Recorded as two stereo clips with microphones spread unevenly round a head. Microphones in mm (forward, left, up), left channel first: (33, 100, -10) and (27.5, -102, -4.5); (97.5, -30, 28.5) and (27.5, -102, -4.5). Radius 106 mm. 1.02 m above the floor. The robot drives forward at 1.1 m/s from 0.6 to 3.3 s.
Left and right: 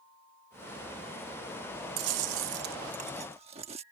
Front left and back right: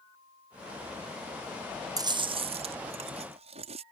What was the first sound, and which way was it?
Chewing, 85° right.